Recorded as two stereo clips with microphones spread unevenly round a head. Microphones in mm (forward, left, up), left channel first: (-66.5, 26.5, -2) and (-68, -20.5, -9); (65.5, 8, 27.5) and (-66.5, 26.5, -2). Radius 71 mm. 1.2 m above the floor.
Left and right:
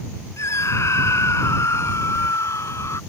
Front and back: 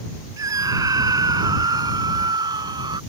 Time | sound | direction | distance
0.4 | a scream | 105° left | ?